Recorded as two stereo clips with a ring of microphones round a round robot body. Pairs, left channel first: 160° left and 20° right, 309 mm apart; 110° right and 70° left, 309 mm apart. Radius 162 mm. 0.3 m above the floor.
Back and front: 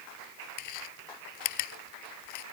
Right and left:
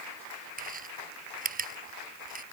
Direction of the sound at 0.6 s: 130° left.